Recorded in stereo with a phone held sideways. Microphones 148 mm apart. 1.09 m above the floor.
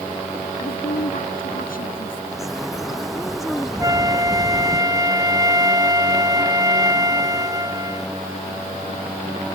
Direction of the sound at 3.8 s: 25° right (ahead or behind).